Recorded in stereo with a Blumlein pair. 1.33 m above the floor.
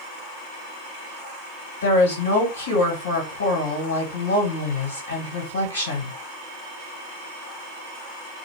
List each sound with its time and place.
1.8 s a woman speaking: 65° left, 1.6 m